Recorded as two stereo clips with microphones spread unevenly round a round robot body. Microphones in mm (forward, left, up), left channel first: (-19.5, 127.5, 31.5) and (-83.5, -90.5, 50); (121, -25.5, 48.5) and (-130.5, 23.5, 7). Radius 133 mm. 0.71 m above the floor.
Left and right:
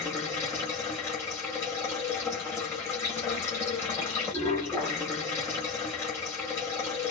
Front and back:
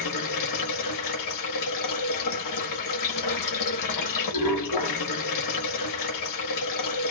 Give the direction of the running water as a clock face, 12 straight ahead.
12 o'clock.